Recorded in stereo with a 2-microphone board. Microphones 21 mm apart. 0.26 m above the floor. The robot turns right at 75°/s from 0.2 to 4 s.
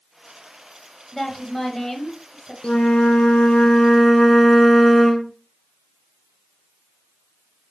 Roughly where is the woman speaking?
Centre.